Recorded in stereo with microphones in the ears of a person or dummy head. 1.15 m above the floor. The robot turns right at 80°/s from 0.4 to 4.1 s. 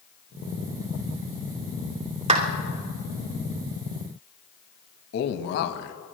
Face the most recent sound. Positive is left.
turn(degrees=55)  # may be behind; listen again after turning